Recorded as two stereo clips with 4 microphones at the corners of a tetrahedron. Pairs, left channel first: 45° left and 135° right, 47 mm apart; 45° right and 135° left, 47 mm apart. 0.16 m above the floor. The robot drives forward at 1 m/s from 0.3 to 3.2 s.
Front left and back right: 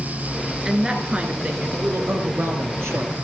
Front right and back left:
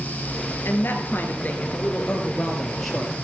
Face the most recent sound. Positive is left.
turn(degrees=-135)